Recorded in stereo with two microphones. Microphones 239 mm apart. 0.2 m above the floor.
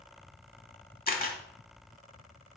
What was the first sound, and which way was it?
A camera shutter, 35° left (ahead or behind).